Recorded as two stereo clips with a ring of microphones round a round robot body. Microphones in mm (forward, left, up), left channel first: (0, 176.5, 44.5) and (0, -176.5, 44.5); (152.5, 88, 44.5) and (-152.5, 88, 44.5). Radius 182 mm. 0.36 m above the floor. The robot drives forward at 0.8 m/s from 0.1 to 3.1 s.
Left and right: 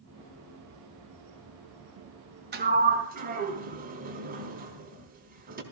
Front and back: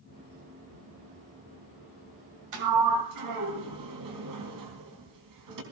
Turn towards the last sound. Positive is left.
turn(degrees=-155)